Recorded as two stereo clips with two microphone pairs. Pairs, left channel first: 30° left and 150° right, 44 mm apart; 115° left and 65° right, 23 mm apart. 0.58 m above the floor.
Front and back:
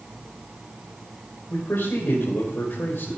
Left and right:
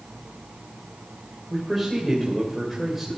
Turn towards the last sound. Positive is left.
turn(degrees=15)